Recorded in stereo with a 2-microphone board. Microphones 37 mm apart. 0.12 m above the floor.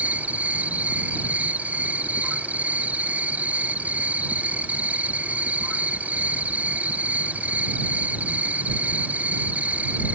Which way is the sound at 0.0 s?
45° right (ahead or behind).